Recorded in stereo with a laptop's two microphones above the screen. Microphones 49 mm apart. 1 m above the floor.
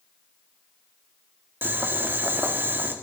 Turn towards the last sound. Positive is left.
turn(degrees=-45)  # may be behind; listen again after turning